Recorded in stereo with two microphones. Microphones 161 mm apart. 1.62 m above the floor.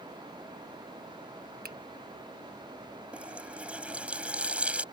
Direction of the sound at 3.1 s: 5° right (ahead or behind).